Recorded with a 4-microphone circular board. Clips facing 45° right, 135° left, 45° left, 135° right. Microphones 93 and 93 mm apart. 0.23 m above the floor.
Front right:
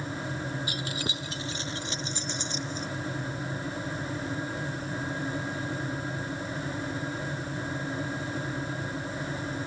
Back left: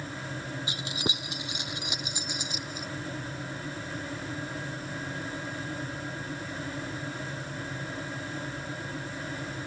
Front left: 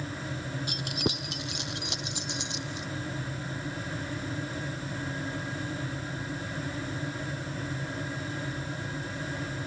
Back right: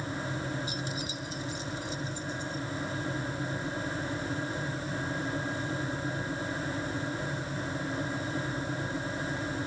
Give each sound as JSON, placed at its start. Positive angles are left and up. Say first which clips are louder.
{"t": 0.7, "sound": "keys jangling", "louder": "even, front left 4 dB", "azimuth_deg": 65}